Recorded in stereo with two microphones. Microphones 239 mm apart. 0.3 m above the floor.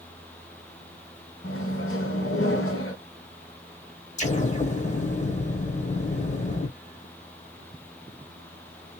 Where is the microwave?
60° left (ahead or behind), 1.5 m.